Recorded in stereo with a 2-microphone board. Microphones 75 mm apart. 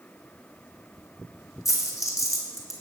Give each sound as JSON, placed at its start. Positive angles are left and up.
{"t": 1.6, "sound": "a dropped coin", "side_deg": 45, "distance_m": 1.5}